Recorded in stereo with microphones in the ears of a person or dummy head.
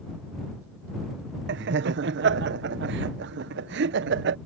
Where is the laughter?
55° right (ahead or behind).